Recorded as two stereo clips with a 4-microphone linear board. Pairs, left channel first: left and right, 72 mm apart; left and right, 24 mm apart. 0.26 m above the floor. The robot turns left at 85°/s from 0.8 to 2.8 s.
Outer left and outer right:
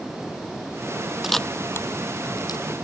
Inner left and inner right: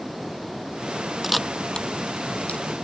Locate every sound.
1.2 s a camera shutter: 5° right (ahead or behind); by 2.7 s 60° left (ahead or behind)